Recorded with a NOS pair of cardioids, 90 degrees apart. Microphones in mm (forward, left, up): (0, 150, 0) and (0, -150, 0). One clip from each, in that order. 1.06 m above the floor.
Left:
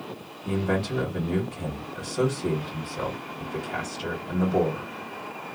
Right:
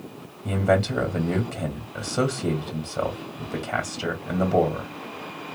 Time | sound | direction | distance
0.5 | a man speaking | 60° right | 2.5 m